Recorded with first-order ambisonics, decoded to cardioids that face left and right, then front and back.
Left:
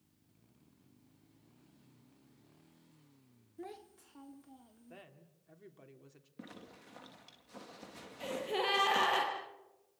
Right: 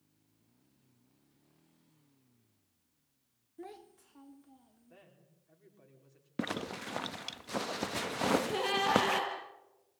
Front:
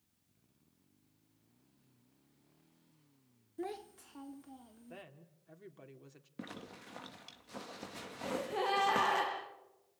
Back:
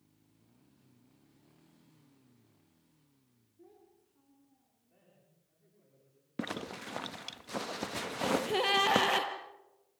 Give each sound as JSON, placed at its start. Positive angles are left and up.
{"t": 3.6, "sound": "a child speaking", "azimuth_deg": 0, "distance_m": 1.1}
{"t": 4.9, "sound": "a woman speaking", "azimuth_deg": 25, "distance_m": 3.5}
{"t": 6.4, "sound": "a zipper", "azimuth_deg": -125, "distance_m": 0.7}
{"t": 8.2, "sound": "a gasp", "azimuth_deg": 175, "distance_m": 6.5}